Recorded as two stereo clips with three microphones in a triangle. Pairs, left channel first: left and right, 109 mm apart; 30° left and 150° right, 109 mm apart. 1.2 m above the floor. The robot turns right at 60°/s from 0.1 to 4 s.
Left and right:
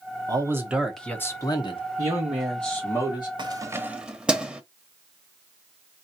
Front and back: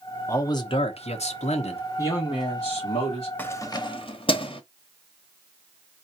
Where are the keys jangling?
45° right, 0.9 m; by 4.6 s 10° right, 0.9 m.